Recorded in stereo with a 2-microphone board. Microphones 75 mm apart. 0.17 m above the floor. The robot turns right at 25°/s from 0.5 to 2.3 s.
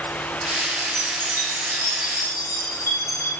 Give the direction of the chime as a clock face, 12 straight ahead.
9 o'clock.